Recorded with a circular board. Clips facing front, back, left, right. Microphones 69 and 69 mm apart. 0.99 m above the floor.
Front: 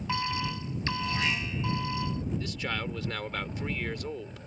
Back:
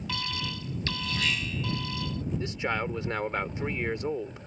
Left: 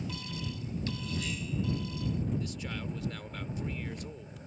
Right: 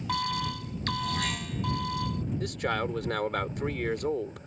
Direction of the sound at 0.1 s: 65° right.